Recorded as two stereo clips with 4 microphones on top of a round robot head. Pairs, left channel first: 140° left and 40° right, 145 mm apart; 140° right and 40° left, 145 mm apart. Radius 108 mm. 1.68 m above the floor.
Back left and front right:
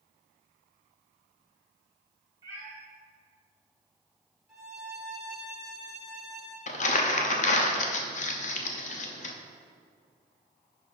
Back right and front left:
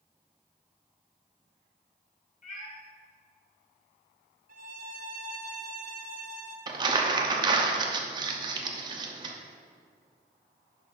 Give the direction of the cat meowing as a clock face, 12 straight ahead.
4 o'clock.